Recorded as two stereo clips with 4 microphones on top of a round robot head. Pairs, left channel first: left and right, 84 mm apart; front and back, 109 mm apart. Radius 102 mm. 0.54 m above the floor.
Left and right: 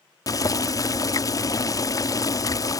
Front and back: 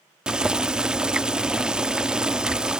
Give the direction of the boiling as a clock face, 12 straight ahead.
9 o'clock.